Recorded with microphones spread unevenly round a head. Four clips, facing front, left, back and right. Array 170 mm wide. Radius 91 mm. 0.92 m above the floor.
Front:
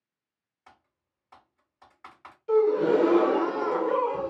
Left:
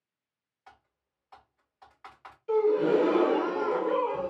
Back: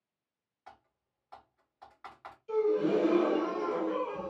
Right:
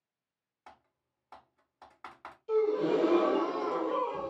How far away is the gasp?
About 0.7 m.